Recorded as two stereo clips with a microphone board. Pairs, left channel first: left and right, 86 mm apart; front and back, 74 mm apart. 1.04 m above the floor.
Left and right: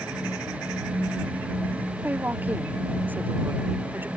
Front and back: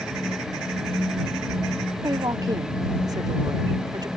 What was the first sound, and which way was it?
A woman speaking, 160° right.